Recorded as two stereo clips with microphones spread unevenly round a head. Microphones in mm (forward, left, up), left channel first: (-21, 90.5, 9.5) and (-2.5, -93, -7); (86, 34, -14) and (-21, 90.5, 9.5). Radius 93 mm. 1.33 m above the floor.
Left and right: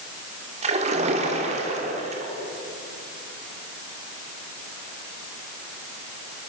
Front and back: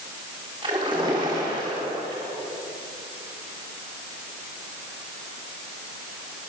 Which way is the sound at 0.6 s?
140° right.